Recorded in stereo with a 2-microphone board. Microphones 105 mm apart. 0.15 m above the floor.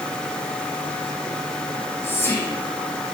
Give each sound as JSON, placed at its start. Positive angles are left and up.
{"t": 1.7, "sound": "whispering", "side_deg": 25, "distance_m": 1.0}